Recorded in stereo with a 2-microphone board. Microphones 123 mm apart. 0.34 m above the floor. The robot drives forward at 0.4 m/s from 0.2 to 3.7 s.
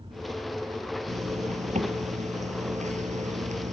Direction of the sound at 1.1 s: 70° right (ahead or behind).